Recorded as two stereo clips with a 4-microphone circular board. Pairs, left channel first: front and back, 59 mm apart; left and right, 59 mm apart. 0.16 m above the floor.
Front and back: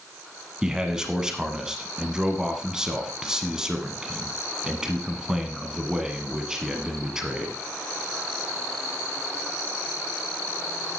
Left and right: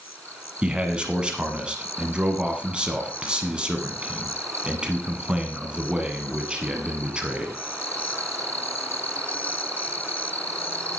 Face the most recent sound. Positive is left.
turn(degrees=-125)